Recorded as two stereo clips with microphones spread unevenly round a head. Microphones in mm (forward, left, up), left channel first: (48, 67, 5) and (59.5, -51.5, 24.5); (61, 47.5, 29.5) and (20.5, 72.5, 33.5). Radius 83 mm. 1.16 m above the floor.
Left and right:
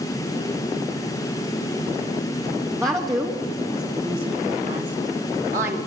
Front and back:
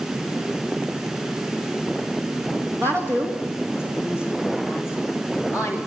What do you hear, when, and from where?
2.8 s a woman speaking: 160° right, 2 m; by 5.8 s 125° right, 2.5 m